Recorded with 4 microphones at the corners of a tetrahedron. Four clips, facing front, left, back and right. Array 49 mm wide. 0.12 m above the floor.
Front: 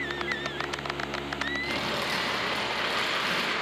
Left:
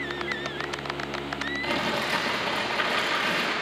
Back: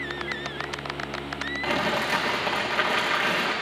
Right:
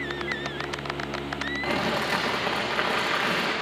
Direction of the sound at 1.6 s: 140° right.